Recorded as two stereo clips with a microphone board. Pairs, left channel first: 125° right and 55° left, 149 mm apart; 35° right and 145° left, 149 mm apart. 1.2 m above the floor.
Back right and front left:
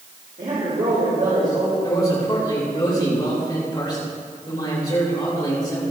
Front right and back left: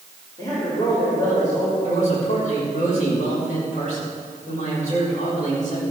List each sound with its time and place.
0.4 s a man speaking: 30° left, 5.5 m
1.8 s a man speaking: 60° right, 5.5 m